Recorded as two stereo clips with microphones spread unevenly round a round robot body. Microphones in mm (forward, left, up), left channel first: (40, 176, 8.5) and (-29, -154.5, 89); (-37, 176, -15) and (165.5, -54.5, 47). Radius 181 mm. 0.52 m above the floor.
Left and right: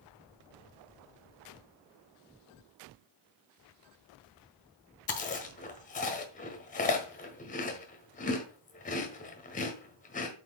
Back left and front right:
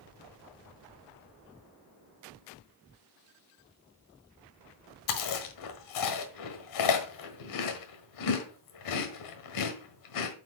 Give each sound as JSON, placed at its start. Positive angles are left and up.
{"t": 5.1, "sound": "chewing", "azimuth_deg": 145, "distance_m": 1.4}